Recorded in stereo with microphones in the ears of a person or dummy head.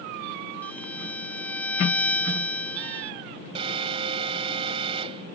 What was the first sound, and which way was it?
A violin, 10° left (ahead or behind).